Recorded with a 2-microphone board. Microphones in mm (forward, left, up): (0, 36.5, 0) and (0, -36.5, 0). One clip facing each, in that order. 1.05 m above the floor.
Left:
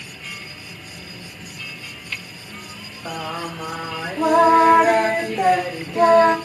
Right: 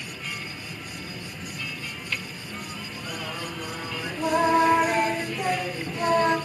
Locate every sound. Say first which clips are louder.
0.0 s an insect: right 1 dB; 20° right (ahead or behind), 5 m
3.0 s singing: left 8 dB; 75° left (ahead or behind), 1.6 m